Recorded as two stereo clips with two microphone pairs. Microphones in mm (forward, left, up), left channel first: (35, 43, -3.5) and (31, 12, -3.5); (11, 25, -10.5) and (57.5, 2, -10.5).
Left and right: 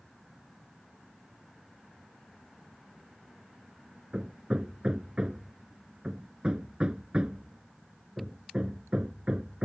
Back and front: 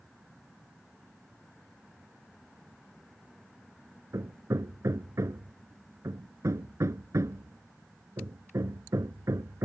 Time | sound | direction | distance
4.1 | hammering | 35° right | ?